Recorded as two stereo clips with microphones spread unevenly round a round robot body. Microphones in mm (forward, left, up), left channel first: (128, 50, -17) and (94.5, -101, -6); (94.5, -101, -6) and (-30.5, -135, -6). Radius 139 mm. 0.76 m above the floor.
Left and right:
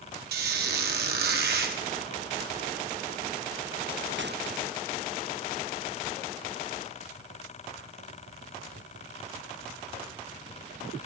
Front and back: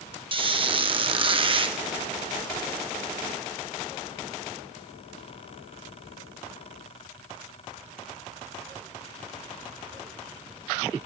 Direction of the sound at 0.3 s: 120° right.